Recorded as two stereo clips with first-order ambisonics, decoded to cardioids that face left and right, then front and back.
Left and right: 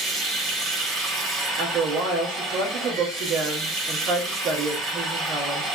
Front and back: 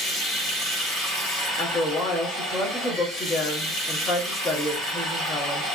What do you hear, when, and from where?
0.0 s running water: 45° right, 1.9 m
1.5 s a woman speaking: 55° right, 1.4 m